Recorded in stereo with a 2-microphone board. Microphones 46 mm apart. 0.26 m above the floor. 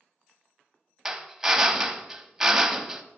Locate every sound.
1.1 s a drill: 10° right (ahead or behind), 0.7 m